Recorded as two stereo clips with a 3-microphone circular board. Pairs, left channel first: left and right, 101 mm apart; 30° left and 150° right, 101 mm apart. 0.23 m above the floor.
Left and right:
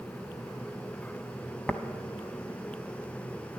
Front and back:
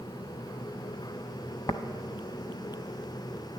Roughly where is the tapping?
Ahead.